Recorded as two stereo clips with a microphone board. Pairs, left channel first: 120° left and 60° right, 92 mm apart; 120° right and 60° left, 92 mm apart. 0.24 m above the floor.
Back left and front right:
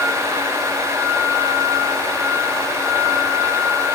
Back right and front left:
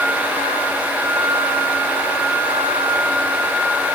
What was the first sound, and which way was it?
Only background noise.